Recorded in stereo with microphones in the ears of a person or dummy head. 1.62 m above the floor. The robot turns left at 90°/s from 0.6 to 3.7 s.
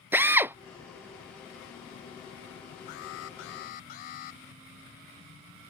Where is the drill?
15° right (ahead or behind).